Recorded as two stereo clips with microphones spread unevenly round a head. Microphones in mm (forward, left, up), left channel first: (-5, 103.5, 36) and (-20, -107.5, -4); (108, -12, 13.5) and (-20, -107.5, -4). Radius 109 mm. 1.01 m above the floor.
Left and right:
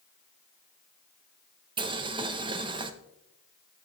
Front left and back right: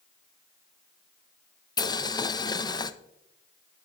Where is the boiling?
30° right, 0.6 m.